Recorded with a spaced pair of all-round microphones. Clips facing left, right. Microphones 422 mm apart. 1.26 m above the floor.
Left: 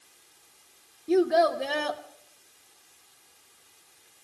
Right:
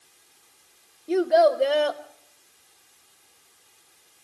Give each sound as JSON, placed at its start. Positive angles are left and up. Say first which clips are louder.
{"t": 1.1, "sound": "a child speaking", "louder": "right 2 dB", "side_deg": 25, "distance_m": 0.8}